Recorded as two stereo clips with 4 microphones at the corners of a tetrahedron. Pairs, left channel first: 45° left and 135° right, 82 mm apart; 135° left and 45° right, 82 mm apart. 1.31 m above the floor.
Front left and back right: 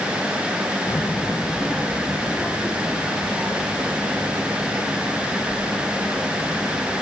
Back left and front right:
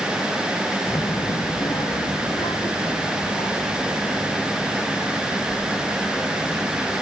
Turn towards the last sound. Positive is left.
turn(degrees=155)